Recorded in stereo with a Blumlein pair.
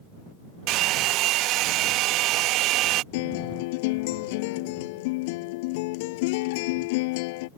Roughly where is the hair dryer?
Ahead right.